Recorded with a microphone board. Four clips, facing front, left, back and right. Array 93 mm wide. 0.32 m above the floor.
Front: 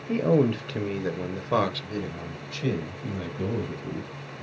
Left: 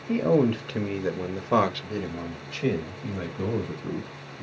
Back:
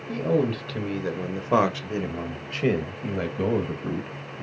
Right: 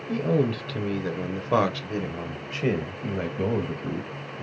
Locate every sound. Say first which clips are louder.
0.1 s a man speaking: left 3 dB, front 2 dB; 45° left, 1.3 m; by 4.5 s 150° right, 2 m